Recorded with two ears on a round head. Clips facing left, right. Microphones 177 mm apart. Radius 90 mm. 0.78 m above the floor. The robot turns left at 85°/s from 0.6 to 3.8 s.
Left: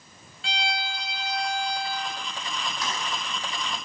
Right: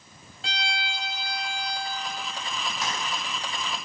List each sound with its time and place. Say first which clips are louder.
0.4 s a violin: left 3 dB; 140° right, 1.4 m; by 2.0 s 95° left, 1.4 m
2.8 s keys jangling: right 1 dB; 20° right (ahead or behind), 3.5 m; by 2.9 s 30° right (ahead or behind), 3.5 m